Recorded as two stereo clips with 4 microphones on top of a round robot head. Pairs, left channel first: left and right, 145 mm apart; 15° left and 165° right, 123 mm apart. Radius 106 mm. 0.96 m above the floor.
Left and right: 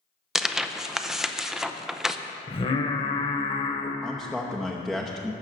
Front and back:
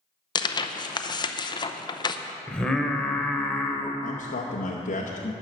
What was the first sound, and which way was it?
Tearing paper, 5° right.